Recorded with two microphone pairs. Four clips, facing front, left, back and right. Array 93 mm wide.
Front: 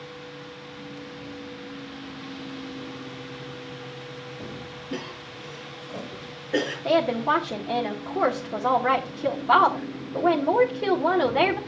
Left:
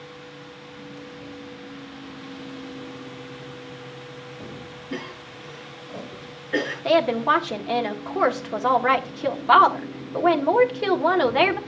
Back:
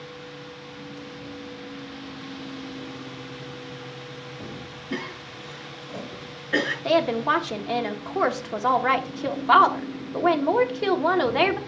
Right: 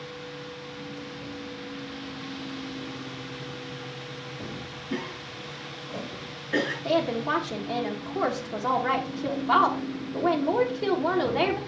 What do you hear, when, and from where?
4.9 s a cough: 170° left, 4 m
6.8 s a woman speaking: 135° left, 1.3 m